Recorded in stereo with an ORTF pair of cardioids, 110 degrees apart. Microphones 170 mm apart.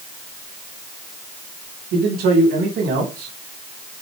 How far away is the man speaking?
About 4 m.